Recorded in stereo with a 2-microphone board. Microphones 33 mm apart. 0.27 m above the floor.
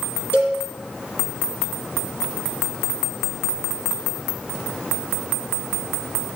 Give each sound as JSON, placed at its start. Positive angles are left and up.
{"t": 0.3, "sound": "a cowbell", "side_deg": 65, "distance_m": 4.5}